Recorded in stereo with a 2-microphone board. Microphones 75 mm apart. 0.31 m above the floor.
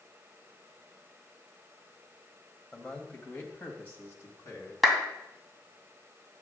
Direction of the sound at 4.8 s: Centre (ahead or behind).